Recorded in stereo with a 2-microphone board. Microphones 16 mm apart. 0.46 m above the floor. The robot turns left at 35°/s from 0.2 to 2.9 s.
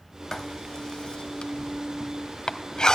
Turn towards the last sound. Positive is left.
turn(degrees=50)  # may be behind; listen again after turning